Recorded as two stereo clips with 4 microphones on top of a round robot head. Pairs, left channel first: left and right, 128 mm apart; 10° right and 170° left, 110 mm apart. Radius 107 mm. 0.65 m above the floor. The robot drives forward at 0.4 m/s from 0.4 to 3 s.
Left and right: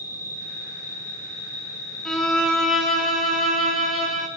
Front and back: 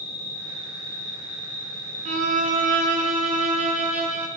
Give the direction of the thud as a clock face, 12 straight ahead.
I don't hear a thud.